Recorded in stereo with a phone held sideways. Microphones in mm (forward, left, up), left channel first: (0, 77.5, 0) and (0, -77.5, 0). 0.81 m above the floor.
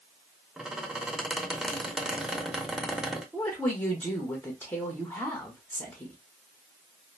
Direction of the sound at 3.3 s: 15° left (ahead or behind).